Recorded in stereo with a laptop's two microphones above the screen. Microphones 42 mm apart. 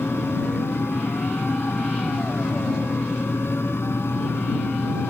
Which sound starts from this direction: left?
A fan, at 0.0 s.